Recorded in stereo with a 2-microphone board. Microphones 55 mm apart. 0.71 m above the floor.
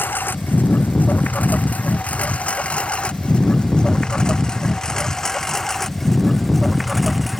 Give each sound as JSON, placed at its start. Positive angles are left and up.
{"t": 0.0, "sound": "a lawn mower", "side_deg": 35}